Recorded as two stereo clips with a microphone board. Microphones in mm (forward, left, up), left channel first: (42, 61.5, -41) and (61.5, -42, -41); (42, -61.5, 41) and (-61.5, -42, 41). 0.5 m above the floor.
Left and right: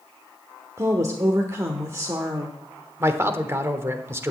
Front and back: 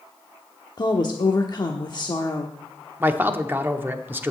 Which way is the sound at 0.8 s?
35° right.